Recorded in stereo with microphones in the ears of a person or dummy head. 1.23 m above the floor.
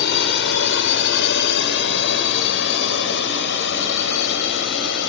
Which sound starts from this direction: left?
A drone, at 0.0 s.